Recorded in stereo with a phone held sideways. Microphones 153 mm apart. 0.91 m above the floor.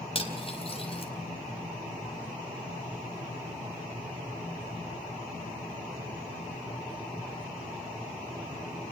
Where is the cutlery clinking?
40° left (ahead or behind), 3.5 m.